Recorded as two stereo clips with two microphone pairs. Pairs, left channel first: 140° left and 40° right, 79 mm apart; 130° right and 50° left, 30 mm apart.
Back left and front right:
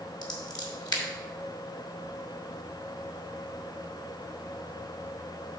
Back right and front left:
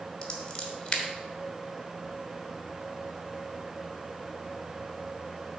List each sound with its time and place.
0.2 s scissors: 165° left, 1.3 m